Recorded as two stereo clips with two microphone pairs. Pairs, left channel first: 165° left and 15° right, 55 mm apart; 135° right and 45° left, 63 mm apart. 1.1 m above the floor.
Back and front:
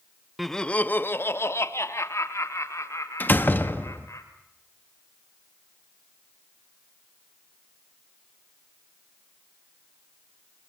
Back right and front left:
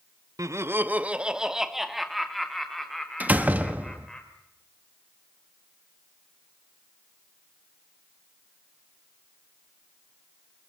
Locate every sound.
0.4 s laughter: 70° left, 0.7 m; by 4.2 s 145° left, 4.5 m
3.2 s a door slam: 110° left, 1.3 m